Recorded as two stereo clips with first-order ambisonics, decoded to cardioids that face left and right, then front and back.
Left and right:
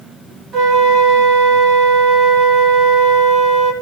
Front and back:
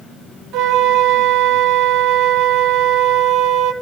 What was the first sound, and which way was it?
A flute, 145° right.